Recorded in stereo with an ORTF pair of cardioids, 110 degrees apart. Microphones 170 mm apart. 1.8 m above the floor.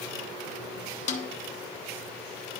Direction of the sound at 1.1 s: 45° left.